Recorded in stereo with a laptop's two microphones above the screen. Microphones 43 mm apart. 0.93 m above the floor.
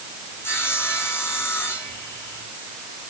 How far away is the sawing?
About 7 m.